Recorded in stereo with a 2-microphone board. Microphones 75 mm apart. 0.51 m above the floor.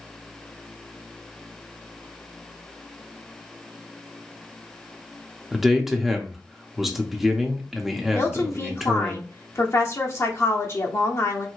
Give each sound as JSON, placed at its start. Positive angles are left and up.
{"t": 5.5, "sound": "a man speaking", "side_deg": -5, "distance_m": 0.7}
{"t": 8.1, "sound": "a woman speaking", "side_deg": 40, "distance_m": 0.8}